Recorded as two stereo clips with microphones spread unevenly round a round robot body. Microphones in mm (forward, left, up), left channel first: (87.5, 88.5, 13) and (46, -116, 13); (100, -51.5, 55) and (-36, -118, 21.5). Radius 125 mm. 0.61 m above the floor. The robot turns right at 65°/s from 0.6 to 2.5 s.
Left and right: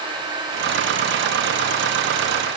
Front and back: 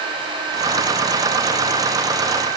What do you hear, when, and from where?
Only background noise.